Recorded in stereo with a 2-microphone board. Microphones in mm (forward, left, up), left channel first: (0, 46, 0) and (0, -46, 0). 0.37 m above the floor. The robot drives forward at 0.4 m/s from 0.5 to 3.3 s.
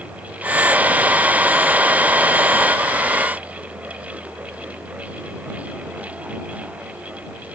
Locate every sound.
Only background noise.